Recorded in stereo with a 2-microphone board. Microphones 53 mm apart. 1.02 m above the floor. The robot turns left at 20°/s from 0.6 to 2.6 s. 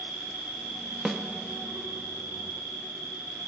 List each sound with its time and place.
0.0 s an insect: 50° right, 1.8 m; by 3.5 s 90° right, 1.8 m
1.1 s a snare drum: 5° right (ahead or behind), 0.7 m; by 1.2 s 10° right (ahead or behind), 0.7 m